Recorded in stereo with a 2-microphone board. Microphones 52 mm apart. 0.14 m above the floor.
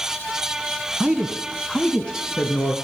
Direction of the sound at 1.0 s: 20° right (ahead or behind).